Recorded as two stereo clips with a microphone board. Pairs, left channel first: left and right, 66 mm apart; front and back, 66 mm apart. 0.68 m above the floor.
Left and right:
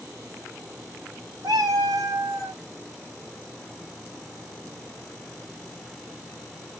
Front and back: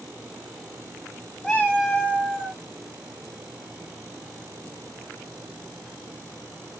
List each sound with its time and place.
1.4 s a cat meowing: 75° right, 3 m; by 2.6 s 60° right, 3 m